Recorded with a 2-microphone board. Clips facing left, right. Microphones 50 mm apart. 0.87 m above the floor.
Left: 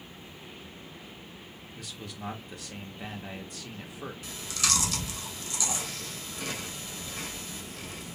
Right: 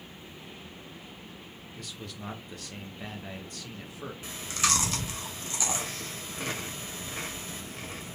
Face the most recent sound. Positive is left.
turn(degrees=-35)  # may be behind; listen again after turning